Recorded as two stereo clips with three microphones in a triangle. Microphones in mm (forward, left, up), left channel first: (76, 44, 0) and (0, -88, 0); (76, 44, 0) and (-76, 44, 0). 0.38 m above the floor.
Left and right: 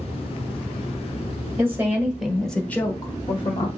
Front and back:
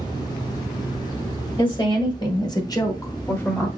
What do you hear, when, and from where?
1.6 s a woman speaking: 50° right, 1.7 m; by 3.7 s 80° left, 1.3 m